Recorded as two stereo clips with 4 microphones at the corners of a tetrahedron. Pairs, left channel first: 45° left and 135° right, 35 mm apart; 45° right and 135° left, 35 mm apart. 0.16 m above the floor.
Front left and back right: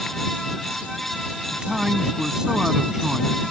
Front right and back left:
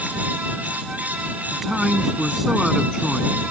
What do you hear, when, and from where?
1.5 s a man speaking: 160° right